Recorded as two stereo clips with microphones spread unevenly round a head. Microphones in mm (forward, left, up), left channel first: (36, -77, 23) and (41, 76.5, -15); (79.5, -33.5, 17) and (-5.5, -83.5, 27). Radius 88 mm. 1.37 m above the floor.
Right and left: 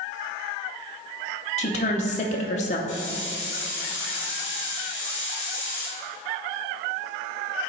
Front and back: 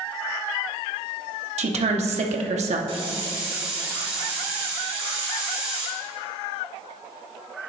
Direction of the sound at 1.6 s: 145° right.